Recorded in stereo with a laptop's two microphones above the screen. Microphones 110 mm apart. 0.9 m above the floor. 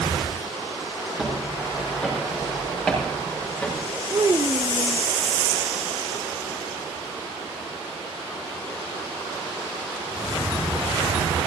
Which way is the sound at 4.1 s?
35° right (ahead or behind).